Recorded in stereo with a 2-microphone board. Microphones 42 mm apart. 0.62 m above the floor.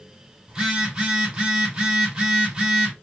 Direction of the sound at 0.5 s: 15° right (ahead or behind).